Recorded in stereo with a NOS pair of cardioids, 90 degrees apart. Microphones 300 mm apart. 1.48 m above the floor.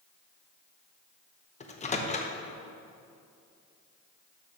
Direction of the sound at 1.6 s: 25° left.